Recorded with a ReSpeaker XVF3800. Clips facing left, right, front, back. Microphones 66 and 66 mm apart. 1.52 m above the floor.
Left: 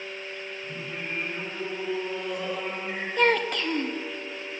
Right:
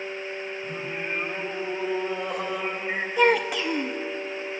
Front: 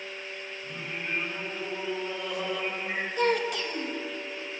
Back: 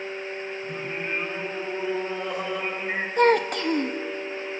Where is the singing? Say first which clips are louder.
Right 3 dB, back 2 dB; 125° right, 7 m.